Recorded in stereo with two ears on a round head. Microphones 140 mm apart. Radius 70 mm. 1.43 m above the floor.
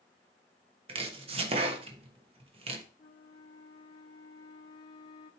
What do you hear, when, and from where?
0.9 s chopping: 40° right (ahead or behind), 1.1 m
3.0 s a flute: 30° left (ahead or behind), 1.2 m